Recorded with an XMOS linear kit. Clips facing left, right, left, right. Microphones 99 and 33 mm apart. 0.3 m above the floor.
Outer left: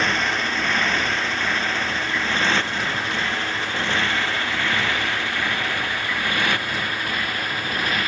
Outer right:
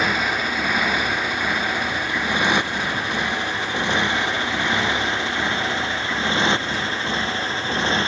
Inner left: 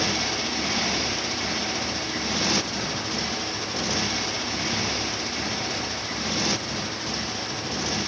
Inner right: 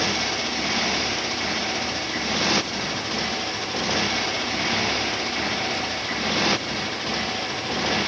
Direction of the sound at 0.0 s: 10° right (ahead or behind).